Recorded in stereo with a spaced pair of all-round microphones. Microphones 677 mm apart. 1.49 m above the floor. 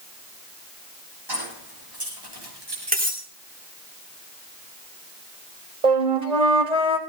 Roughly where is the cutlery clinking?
Centre.